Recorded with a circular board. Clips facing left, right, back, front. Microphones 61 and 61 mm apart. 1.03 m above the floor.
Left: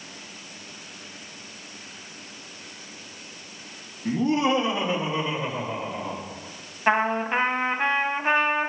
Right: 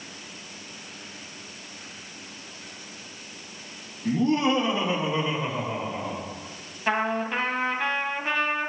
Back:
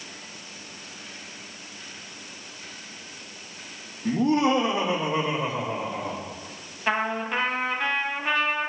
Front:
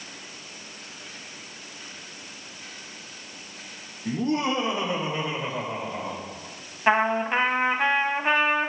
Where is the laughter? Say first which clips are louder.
Even, back 4 dB; 165° left, 1.4 m; by 6.2 s 175° right, 4.5 m.